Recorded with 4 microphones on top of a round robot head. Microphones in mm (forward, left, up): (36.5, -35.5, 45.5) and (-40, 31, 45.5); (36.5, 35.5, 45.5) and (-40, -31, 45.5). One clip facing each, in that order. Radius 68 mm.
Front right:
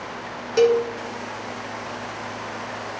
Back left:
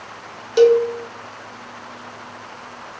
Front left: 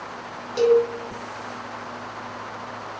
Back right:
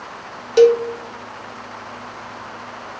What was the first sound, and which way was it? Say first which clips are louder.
A cowbell: back left 5 dB, back right 5 dB; 145° right.